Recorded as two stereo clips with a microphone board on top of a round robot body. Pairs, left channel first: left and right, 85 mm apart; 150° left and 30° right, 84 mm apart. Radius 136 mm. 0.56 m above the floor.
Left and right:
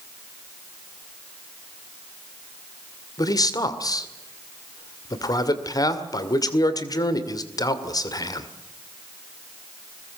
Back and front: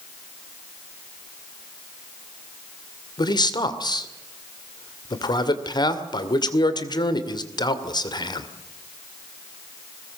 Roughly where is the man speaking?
Behind left.